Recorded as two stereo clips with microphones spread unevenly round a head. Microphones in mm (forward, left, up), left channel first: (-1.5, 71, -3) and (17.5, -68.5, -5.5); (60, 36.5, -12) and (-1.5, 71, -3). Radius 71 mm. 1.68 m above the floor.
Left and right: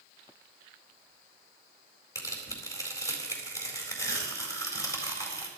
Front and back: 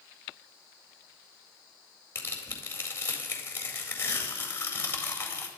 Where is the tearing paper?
30° left, 4 m.